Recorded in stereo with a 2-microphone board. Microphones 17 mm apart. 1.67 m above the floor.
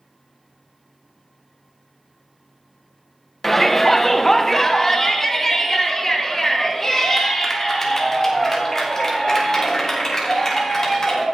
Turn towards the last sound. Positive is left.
turn(degrees=30)  # may be behind; listen again after turning